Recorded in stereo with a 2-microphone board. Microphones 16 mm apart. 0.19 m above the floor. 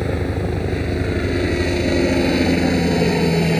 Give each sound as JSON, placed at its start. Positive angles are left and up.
{"t": 0.0, "sound": "a helicopter", "side_deg": 5}